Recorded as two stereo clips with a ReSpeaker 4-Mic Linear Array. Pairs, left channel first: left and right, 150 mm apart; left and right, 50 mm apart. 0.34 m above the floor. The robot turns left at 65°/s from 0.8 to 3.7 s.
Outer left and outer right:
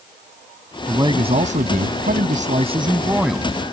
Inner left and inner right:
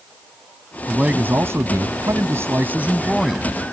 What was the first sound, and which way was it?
A man speaking, 20° right.